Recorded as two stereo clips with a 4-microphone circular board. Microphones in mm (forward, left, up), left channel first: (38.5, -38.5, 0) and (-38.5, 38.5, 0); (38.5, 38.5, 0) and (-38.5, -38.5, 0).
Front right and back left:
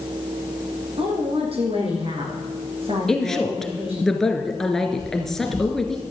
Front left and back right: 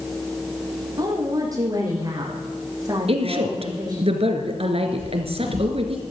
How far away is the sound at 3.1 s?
About 2 m.